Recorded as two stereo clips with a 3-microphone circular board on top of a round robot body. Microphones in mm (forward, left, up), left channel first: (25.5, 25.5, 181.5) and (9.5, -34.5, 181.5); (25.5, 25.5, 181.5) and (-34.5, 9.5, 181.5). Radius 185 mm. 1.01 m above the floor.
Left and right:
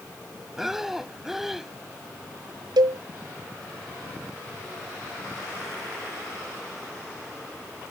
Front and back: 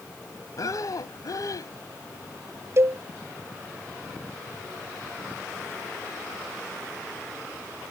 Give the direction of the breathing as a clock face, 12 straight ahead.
1 o'clock.